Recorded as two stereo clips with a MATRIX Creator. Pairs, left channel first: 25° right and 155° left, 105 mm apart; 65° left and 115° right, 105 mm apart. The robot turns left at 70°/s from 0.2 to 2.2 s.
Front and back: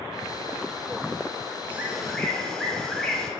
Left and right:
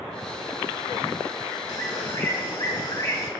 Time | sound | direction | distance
1.7 | a bird | 95° left | 1.3 m